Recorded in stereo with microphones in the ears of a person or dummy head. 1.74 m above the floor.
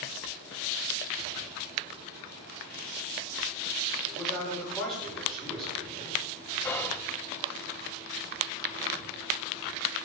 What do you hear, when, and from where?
4.1 s a man speaking: centre (ahead or behind), 5.5 m
6.6 s whispering: 5° left (ahead or behind), 0.6 m